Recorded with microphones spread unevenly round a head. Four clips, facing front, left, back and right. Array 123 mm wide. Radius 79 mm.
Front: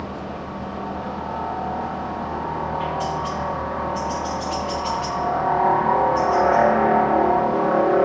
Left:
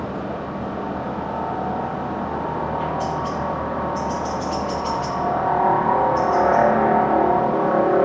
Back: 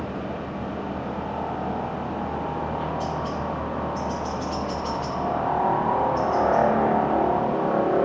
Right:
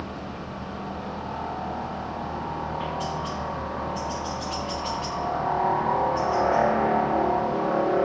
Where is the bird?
No bird in this recording.